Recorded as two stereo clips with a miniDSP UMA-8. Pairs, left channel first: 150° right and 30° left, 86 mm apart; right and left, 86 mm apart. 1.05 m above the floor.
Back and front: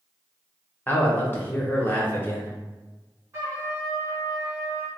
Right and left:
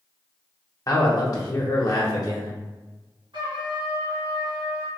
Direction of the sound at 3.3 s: 90° left.